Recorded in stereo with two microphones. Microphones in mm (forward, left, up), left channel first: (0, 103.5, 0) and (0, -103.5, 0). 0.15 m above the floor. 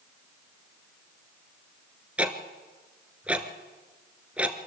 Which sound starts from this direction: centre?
Ticking, at 2.2 s.